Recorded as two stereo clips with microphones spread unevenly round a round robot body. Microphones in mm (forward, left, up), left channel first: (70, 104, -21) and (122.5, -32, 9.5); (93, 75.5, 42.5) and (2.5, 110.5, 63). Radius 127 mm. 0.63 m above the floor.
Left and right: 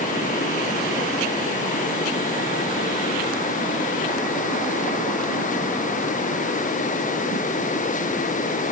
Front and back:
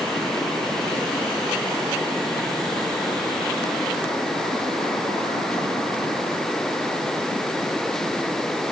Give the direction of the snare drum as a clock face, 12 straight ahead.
No snare drum in this recording.